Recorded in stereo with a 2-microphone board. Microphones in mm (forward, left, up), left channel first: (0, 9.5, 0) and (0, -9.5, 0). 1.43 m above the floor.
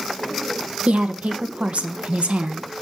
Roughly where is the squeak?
No squeak in this recording.